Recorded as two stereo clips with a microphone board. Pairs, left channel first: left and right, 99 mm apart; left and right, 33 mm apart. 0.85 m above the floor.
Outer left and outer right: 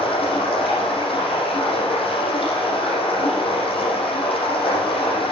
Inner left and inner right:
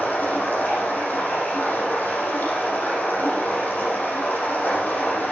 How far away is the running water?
About 7.5 m.